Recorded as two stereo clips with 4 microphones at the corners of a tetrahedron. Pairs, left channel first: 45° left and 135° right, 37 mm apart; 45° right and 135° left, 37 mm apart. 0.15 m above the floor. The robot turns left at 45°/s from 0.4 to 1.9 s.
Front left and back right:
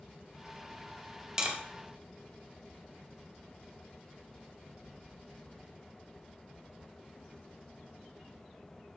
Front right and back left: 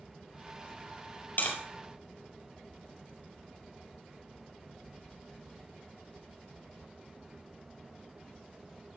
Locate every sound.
1.4 s tapping: 60° right, 2.5 m; by 1.6 s 70° right, 2.5 m